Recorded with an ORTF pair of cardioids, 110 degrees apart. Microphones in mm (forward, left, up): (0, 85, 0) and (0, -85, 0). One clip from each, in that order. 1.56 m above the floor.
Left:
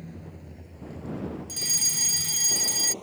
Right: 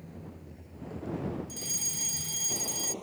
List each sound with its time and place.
0.0 s a vehicle: 35° left; by 3.0 s 5° left
1.5 s a fire alarm: 45° left